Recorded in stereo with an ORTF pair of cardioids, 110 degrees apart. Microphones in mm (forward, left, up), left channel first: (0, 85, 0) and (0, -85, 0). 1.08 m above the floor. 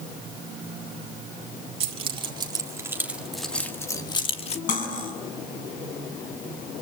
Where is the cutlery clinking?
50° left, 6.5 m.